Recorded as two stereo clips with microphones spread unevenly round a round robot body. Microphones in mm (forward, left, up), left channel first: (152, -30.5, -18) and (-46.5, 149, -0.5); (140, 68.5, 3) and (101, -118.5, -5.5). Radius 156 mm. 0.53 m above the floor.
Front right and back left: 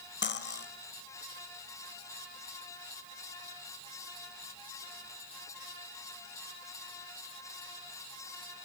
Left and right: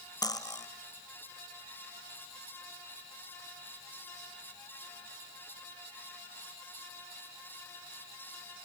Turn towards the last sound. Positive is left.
turn(degrees=5)